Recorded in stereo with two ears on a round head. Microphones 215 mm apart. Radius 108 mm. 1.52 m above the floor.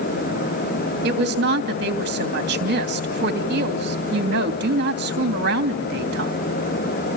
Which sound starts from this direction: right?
A woman speaking, at 1.0 s.